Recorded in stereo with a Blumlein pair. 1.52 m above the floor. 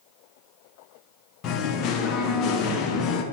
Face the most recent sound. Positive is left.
turn(degrees=35)